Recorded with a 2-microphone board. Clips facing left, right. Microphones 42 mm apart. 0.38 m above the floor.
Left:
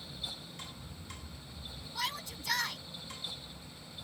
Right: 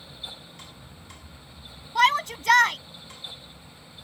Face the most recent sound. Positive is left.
turn(degrees=-70)  # may be behind; listen again after turning